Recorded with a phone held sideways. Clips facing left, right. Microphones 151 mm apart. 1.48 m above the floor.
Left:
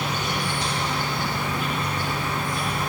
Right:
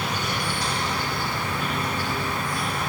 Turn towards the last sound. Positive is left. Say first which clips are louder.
# left 1 dB
turn(degrees=20)  # may be behind; listen again after turning